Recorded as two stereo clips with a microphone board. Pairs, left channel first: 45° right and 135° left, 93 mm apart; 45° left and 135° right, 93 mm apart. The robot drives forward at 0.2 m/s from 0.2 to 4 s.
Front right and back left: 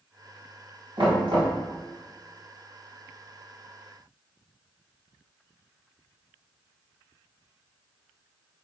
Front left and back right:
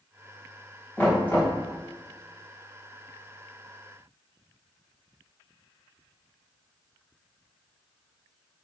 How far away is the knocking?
About 3.5 m.